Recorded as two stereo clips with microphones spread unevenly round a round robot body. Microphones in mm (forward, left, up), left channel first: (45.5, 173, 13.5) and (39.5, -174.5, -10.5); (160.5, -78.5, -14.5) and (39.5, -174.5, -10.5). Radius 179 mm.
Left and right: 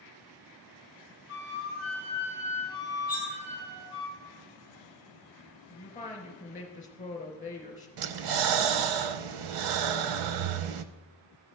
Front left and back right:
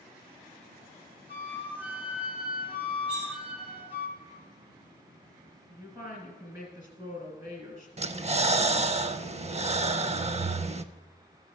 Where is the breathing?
90° right, 0.6 m.